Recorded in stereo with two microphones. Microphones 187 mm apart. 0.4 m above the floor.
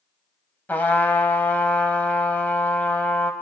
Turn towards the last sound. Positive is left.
turn(degrees=10)  # may be behind; listen again after turning